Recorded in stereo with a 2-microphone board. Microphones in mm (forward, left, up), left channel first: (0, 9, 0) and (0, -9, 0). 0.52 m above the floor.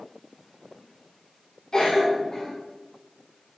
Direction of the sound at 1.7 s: 45° left (ahead or behind).